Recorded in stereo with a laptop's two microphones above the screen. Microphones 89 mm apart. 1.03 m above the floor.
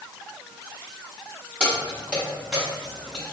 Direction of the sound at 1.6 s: 15° right (ahead or behind).